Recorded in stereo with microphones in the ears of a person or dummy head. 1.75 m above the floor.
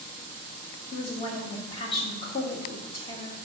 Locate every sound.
0.9 s a woman speaking: 25° left (ahead or behind), 1.5 m